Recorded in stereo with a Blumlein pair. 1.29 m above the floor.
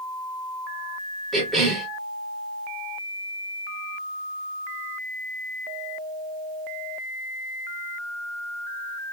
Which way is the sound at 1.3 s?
20° right.